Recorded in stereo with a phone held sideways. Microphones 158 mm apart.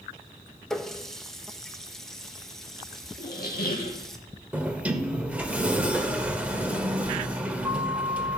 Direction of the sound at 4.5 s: 10° right (ahead or behind).